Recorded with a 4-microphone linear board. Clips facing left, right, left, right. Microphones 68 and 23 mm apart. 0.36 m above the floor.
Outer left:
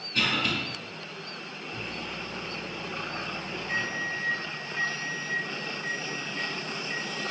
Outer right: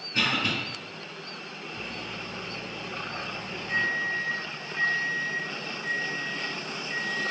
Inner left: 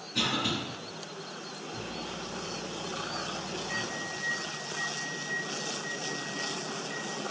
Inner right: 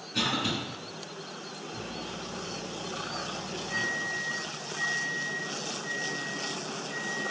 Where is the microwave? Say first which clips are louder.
Outer left 1 dB, even; 25° left (ahead or behind), 0.8 m.